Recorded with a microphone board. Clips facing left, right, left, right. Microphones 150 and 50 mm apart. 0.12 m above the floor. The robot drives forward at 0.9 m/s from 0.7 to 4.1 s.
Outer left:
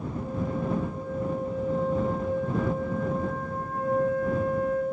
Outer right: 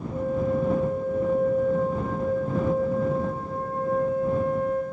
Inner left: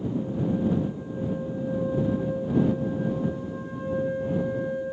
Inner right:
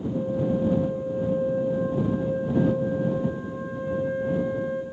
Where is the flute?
65° right (ahead or behind), 1.7 m; by 4.8 s 25° right (ahead or behind), 3.5 m.